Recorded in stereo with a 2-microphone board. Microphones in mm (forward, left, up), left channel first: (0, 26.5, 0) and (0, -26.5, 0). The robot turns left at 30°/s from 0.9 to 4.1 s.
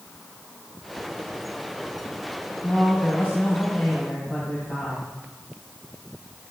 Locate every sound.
2.6 s a man speaking: 130° left, 2 m; by 5.0 s 85° left, 2 m